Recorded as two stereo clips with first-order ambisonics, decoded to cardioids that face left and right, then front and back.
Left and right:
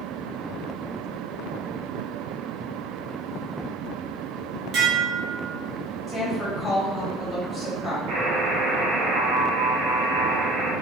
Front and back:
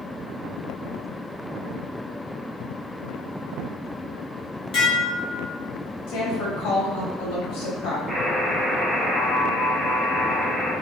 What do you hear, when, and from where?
4.7 s dishes clattering: 50° right, 0.9 m
6.1 s a woman speaking: 5° left, 1.6 m
8.1 s a buzzer: 90° right, 1.4 m